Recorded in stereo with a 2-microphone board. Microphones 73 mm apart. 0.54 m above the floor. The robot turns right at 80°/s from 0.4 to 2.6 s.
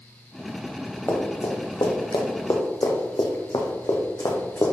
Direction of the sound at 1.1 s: 25° left (ahead or behind).